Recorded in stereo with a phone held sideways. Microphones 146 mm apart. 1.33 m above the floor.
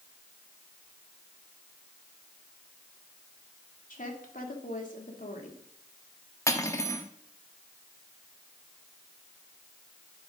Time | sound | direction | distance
3.9 | a woman speaking | 70° left (ahead or behind) | 2.5 m
6.5 | cutlery clinking | 20° left (ahead or behind) | 1.2 m